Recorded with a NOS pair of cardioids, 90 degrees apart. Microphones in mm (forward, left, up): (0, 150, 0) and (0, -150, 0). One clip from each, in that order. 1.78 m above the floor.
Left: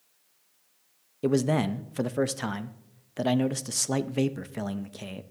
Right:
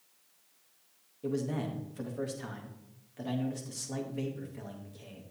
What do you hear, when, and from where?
1.2 s a man speaking: 70° left, 0.6 m